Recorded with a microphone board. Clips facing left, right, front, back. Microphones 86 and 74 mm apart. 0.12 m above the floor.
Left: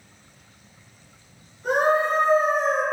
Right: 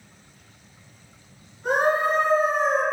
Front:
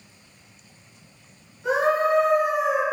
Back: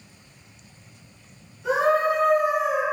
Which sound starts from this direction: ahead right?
A scream, at 1.6 s.